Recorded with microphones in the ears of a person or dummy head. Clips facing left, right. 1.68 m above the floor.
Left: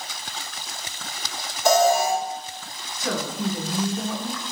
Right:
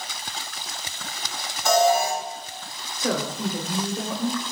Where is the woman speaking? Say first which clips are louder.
Right 1 dB; 25° right (ahead or behind), 0.6 m.